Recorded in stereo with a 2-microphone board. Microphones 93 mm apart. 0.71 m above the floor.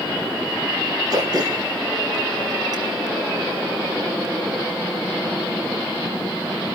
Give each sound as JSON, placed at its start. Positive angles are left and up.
{"t": 1.1, "sound": "throat clearing", "side_deg": -45, "distance_m": 5.5}